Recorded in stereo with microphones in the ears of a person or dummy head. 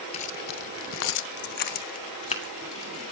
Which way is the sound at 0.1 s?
35° left (ahead or behind).